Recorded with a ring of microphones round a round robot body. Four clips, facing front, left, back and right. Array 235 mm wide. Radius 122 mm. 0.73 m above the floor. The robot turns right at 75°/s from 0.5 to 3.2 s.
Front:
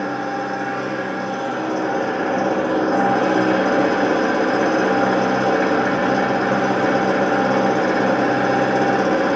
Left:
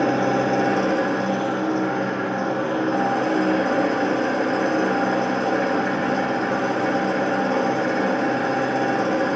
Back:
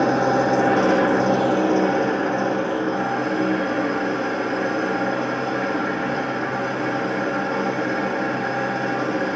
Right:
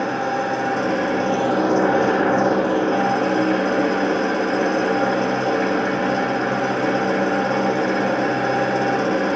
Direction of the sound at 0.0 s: 150° left.